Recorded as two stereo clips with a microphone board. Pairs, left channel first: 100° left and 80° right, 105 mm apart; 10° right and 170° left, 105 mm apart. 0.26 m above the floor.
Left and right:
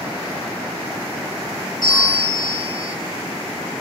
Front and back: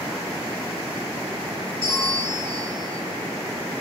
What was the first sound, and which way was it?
A bell, 120° left.